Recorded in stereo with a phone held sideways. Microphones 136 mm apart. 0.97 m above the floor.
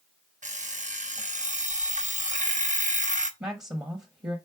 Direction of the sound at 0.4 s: 65° right (ahead or behind).